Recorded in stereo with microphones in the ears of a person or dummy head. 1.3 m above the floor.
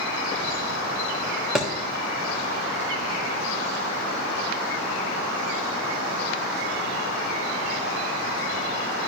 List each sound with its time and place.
1.6 s a thud: 5° right (ahead or behind), 1.1 m